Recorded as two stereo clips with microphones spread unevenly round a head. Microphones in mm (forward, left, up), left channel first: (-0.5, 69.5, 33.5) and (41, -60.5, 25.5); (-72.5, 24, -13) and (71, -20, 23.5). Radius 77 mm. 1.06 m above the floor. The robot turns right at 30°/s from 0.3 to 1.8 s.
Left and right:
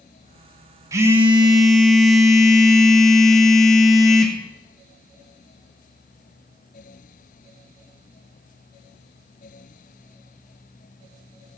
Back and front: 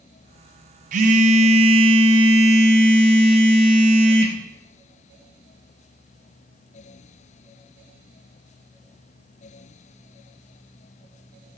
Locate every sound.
0.9 s a phone buzzing: 5° right, 0.9 m; by 4.4 s 25° left, 0.9 m